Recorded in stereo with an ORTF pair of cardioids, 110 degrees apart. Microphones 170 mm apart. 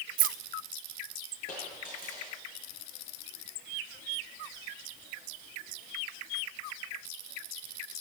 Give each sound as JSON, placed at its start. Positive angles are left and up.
{"t": 0.2, "sound": "keys jangling", "azimuth_deg": -60, "distance_m": 0.8}
{"t": 1.5, "sound": "a dropped coin", "azimuth_deg": 60, "distance_m": 8.5}